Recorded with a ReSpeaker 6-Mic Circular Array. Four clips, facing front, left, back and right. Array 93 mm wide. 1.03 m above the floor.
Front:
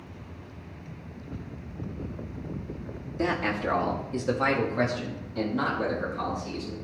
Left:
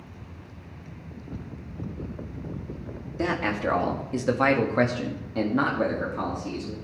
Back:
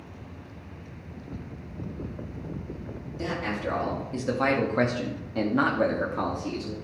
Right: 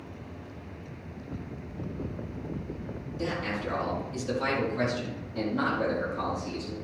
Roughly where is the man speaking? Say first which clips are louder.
Left 6 dB, front 3 dB; ahead left.